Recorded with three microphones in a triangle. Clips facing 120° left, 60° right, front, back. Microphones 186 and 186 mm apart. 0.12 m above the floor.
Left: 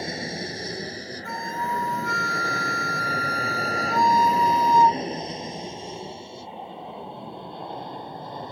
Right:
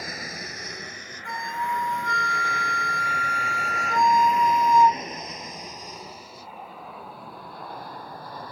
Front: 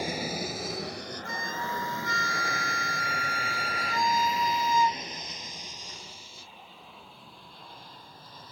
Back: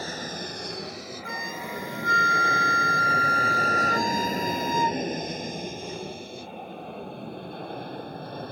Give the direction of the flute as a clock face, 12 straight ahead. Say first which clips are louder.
Even, even; 5 o'clock.